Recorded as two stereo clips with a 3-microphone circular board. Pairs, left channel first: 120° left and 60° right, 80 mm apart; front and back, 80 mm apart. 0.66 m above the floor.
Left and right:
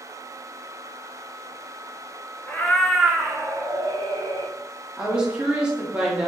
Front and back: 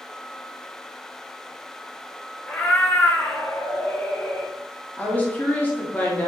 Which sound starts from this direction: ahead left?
A cat meowing, at 2.5 s.